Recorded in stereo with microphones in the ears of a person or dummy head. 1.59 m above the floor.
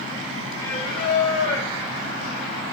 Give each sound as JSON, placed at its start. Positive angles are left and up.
{"t": 0.6, "sound": "singing", "side_deg": 75, "distance_m": 1.4}